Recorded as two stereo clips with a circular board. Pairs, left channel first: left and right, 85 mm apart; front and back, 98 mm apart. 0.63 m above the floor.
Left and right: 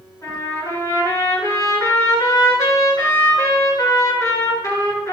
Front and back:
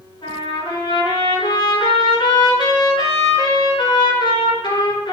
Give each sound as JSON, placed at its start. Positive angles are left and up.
{"t": 0.2, "sound": "a trumpet", "azimuth_deg": 40, "distance_m": 9.5}